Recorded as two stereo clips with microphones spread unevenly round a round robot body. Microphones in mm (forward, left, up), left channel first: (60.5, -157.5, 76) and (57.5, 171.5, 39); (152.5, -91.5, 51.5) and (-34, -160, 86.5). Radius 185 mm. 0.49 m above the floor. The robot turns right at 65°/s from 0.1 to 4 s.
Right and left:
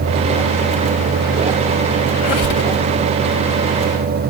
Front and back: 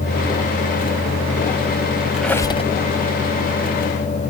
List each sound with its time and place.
2.1 s a squeak: 70° right, 1.8 m; by 2.7 s 35° right, 1.8 m